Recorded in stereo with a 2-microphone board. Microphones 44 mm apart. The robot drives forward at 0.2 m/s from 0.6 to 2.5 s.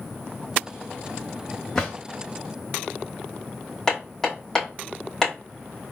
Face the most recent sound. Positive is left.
turn(degrees=10)  # may be behind; listen again after turning